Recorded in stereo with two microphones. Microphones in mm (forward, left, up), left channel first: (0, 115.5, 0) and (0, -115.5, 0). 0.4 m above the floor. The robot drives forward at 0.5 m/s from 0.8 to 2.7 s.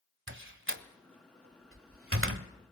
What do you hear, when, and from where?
0.3 s a door slam: 60° right (ahead or behind), 1.3 m